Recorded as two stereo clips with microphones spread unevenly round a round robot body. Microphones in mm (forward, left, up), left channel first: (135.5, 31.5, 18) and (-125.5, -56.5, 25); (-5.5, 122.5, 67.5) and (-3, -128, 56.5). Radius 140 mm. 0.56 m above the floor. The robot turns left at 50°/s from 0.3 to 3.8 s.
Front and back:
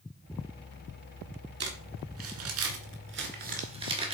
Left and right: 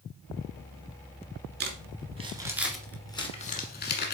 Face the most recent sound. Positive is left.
turn(degrees=130)